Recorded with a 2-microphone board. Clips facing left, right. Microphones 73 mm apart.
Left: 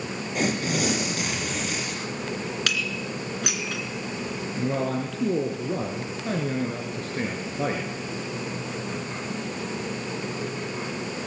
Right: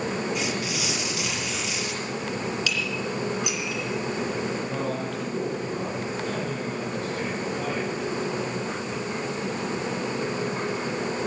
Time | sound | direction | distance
0.3 | tearing paper | 45° left (ahead or behind) | 5 m
2.7 | dishes clattering | 60° left (ahead or behind) | 2.5 m
4.5 | a man speaking | 40° left (ahead or behind) | 4 m